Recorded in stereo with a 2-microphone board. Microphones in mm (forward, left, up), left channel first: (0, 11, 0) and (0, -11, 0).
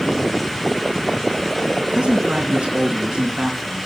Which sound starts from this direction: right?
A man speaking, at 1.8 s.